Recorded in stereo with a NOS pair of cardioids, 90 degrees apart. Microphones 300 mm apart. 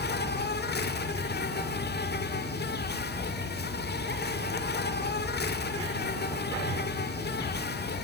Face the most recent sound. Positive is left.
turn(degrees=35)